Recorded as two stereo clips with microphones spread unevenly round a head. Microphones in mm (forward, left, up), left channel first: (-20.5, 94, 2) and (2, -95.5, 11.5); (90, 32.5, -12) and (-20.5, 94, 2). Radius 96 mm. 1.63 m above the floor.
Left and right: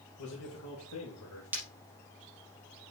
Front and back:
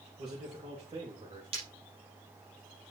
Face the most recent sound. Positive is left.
turn(degrees=-160)